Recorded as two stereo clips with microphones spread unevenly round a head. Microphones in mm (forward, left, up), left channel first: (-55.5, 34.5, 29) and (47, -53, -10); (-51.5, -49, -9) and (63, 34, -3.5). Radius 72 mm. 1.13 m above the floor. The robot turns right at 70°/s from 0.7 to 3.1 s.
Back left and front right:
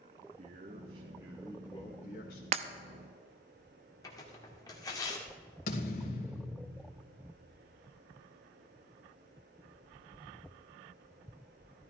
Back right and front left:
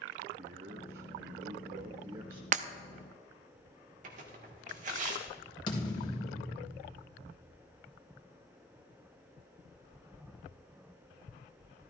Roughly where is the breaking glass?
Ahead.